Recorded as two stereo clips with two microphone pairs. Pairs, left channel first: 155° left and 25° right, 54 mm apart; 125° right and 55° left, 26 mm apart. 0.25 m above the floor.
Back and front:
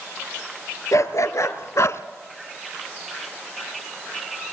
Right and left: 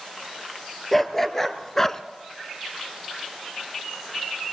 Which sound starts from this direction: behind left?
A dog barking, at 0.9 s.